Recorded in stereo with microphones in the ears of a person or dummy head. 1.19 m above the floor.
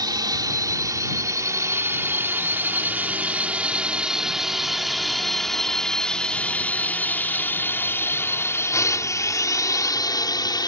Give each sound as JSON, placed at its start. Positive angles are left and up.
{"t": 0.0, "sound": "a drone", "side_deg": -20}